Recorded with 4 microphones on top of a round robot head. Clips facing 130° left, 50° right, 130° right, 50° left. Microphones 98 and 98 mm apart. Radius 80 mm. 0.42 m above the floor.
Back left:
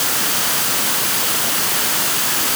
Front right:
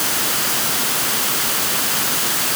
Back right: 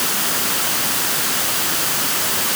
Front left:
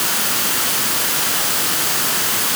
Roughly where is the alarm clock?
No alarm clock in this recording.